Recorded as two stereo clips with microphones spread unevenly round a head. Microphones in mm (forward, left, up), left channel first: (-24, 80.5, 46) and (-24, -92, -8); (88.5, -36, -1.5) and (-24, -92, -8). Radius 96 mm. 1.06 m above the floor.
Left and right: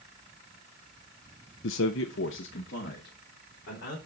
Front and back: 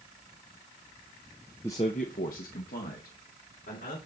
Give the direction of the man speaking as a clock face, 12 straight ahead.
8 o'clock.